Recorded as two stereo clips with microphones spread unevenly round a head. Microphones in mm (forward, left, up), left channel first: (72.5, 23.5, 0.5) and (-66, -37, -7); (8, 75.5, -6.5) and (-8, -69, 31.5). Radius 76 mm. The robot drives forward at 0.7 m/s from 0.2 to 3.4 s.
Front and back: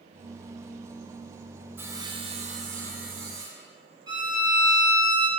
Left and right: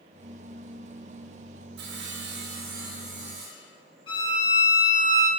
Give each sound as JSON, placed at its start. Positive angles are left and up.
{"t": 1.8, "sound": "sawing", "azimuth_deg": -80, "distance_m": 0.8}
{"t": 4.1, "sound": "a violin", "azimuth_deg": 140, "distance_m": 2.5}